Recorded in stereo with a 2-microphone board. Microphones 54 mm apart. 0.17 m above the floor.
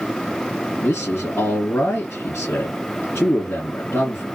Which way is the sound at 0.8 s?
50° left (ahead or behind).